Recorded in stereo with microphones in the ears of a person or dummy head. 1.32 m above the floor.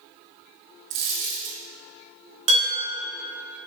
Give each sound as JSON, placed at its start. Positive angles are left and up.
{"t": 0.9, "sound": "a dropped coin", "side_deg": -60, "distance_m": 1.4}
{"t": 2.5, "sound": "dishes clattering", "side_deg": -40, "distance_m": 1.8}